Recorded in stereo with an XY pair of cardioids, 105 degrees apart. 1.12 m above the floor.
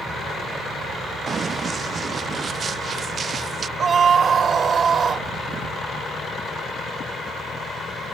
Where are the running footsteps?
35° right; by 3.7 s 40° right.